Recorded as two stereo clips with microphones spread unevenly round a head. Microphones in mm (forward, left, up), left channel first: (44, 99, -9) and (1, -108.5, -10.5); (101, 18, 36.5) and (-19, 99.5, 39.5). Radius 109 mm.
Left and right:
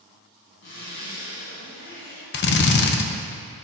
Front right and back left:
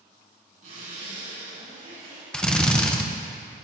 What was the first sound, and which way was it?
A zipper, 115° left.